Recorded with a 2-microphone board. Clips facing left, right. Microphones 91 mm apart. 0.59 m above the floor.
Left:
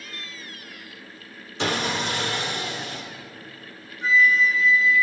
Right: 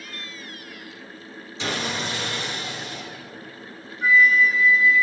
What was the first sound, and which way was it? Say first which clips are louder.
Sawing: left 3 dB; 60° left (ahead or behind).